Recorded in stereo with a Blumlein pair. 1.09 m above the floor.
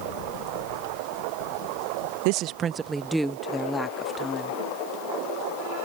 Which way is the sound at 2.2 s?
45° right.